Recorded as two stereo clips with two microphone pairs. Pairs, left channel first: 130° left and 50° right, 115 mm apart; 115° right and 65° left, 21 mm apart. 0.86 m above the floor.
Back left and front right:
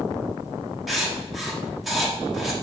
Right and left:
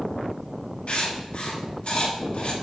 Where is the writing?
140° right, 1.5 m.